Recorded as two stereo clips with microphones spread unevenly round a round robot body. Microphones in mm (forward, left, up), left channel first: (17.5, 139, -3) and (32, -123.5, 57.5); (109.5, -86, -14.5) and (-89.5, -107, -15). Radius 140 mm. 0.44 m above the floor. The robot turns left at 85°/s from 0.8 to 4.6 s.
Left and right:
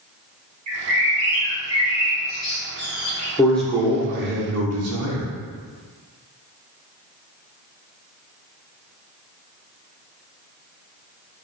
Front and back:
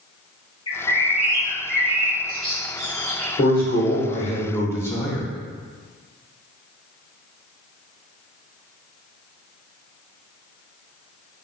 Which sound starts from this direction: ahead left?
A man speaking, at 3.4 s.